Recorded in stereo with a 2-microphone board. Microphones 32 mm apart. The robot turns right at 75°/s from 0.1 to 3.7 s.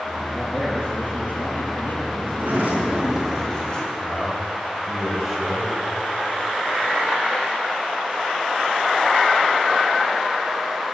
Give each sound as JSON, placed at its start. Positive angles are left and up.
{"t": 0.3, "sound": "a man speaking", "azimuth_deg": 10, "distance_m": 6.5}
{"t": 2.3, "sound": "a sliding door", "azimuth_deg": -85, "distance_m": 4.5}
{"t": 4.0, "sound": "a man speaking", "side_deg": -10, "distance_m": 4.5}